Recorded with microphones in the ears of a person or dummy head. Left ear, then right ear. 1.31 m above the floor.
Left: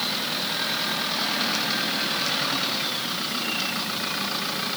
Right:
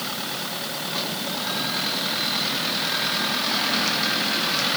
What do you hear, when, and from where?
Only background noise.